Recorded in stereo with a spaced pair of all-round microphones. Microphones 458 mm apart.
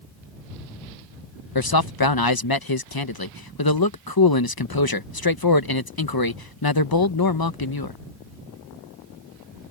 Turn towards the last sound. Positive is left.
turn(degrees=50)  # may be behind; listen again after turning